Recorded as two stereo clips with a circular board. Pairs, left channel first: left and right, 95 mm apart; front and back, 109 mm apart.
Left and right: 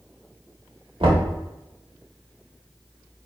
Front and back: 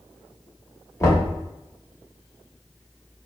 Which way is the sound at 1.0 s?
65° right.